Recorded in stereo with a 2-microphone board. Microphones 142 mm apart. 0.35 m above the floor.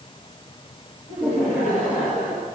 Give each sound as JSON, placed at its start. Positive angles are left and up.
{"t": 1.1, "sound": "laughter", "side_deg": 80, "distance_m": 6.5}